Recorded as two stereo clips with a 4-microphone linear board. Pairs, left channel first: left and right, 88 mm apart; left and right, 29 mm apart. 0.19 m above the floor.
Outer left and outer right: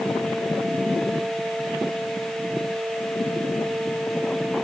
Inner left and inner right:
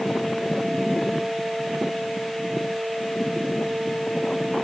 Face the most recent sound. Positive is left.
No sound to turn to.